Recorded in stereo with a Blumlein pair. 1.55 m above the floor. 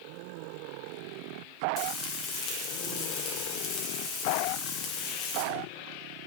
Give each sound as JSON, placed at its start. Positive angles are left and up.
{"t": 1.8, "sound": "frying", "azimuth_deg": 30, "distance_m": 1.6}